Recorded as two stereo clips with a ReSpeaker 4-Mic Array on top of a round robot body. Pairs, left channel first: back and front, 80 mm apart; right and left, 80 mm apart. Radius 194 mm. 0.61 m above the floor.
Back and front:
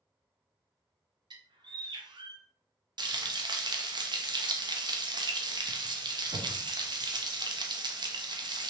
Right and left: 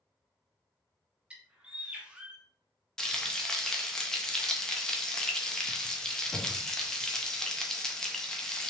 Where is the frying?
10° right, 0.8 m.